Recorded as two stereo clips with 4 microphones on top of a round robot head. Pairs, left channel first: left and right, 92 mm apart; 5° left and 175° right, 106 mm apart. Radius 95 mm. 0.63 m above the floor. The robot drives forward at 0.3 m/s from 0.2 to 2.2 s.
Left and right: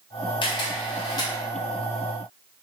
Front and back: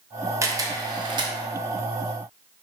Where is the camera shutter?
120° left, 0.5 m; by 1.3 s 140° left, 0.7 m.